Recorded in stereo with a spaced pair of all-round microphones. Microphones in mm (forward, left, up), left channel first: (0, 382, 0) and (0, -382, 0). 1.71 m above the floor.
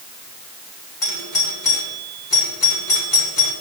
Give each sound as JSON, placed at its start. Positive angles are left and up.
{"t": 1.0, "sound": "a doorbell", "side_deg": 75, "distance_m": 3.5}